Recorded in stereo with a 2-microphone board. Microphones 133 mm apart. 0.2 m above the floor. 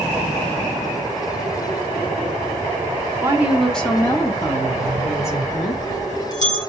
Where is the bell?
65° left (ahead or behind), 4 m.